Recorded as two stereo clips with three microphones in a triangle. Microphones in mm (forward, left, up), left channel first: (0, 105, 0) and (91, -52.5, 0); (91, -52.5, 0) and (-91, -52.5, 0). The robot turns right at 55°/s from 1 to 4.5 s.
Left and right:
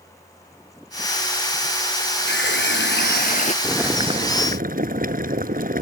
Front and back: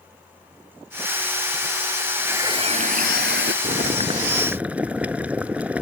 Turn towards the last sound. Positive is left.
turn(degrees=-95)